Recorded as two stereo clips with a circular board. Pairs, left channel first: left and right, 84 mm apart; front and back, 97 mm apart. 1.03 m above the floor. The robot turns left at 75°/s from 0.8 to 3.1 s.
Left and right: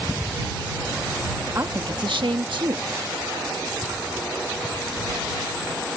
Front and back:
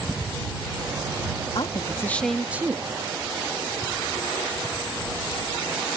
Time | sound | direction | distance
1.6 | a woman speaking | 30° right | ?